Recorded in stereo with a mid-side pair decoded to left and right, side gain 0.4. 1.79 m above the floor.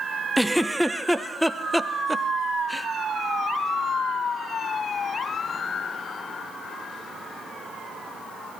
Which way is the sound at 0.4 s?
5° left.